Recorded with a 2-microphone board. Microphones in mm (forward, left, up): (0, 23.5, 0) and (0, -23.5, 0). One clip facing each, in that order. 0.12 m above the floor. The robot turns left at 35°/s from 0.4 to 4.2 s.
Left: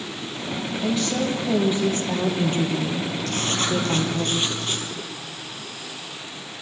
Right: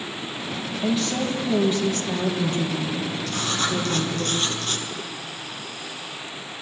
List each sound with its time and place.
0.8 s a woman speaking: 170° right, 3.5 m; by 4.3 s 75° left, 3.5 m
3.3 s writing: 60° left, 2.5 m; by 4.9 s 30° left, 2.5 m